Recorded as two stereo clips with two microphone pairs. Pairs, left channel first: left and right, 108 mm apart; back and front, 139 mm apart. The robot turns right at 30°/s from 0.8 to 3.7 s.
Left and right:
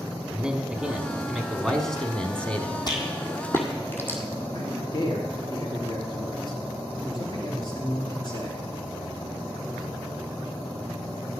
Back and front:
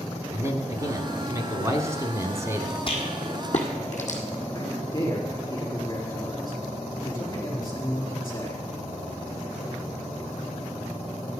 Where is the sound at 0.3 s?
20° right, 1.1 m; by 2.8 s 40° left, 1.1 m.